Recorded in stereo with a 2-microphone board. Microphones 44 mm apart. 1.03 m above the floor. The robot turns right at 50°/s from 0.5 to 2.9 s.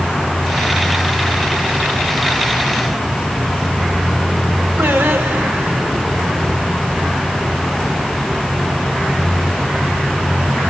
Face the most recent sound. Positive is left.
turn(degrees=-60)  # may be behind; listen again after turning